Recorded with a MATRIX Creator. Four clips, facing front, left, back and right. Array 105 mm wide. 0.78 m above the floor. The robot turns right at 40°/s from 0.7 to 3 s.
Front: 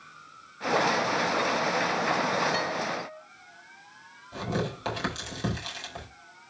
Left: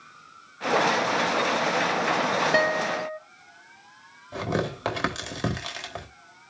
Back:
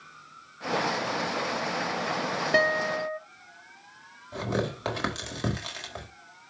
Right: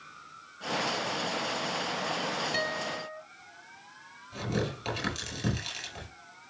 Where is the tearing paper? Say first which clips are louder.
Left 5 dB, back 1 dB; 105° left, 4 m.